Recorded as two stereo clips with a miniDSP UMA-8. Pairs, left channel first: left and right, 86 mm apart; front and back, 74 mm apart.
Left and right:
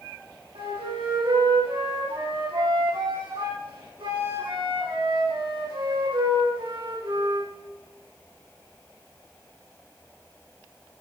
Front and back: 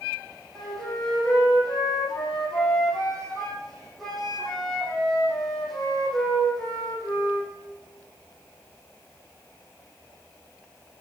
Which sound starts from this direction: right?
A flute, at 0.6 s.